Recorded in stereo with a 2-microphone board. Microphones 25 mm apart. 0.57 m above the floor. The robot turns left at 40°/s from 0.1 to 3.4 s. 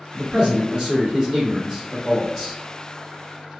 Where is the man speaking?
120° right, 1.7 m; by 2.6 s 145° left, 1.7 m.